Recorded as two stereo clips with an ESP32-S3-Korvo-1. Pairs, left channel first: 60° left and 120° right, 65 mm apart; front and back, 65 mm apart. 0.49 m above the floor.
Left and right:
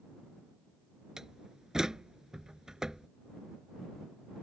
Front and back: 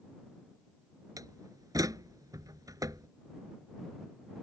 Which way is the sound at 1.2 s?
160° left.